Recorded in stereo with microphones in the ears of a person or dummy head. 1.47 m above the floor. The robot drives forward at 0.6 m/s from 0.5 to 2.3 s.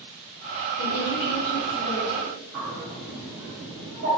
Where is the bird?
65° right (ahead or behind), 2.0 m.